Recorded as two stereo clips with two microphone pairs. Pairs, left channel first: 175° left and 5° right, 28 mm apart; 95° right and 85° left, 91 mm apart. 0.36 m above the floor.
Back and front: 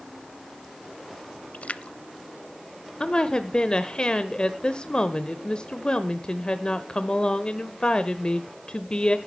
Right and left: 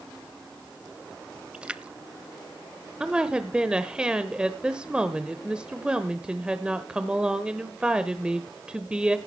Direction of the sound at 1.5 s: 165° left.